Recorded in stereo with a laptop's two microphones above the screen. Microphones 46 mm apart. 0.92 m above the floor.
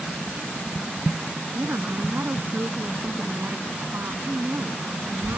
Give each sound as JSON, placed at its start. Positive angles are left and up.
{"t": 1.6, "sound": "a woman speaking", "side_deg": -60}